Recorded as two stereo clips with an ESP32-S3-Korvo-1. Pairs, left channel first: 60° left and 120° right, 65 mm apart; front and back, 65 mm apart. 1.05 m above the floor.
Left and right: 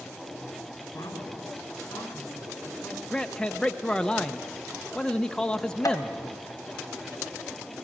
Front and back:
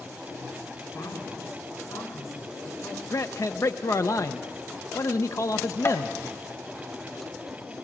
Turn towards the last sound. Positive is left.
turn(degrees=40)